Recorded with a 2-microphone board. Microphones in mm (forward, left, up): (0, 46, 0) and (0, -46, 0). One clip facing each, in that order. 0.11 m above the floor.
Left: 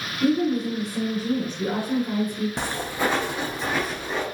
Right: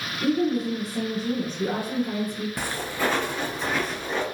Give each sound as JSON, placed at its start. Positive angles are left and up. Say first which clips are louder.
{"t": 0.2, "sound": "a woman speaking", "louder": "left 2 dB", "side_deg": 0, "distance_m": 1.6}
{"t": 2.6, "sound": "footsteps", "louder": "left 2 dB", "side_deg": 30, "distance_m": 0.5}